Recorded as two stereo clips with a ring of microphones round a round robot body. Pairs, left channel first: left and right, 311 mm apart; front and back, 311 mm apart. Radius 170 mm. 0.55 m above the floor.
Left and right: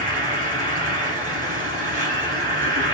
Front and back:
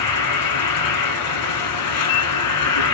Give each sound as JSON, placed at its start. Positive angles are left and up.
{"t": 0.0, "sound": "an insect", "azimuth_deg": -20, "distance_m": 1.7}